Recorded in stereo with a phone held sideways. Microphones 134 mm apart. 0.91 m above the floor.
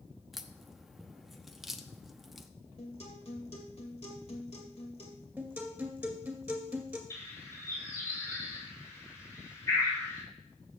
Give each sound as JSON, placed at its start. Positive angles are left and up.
{"t": 0.3, "sound": "a crack", "side_deg": 0, "distance_m": 0.6}
{"t": 2.8, "sound": "a guitar", "side_deg": 55, "distance_m": 2.0}
{"t": 5.4, "sound": "a guitar", "side_deg": -10, "distance_m": 2.0}
{"t": 7.1, "sound": "a bird", "side_deg": 25, "distance_m": 4.0}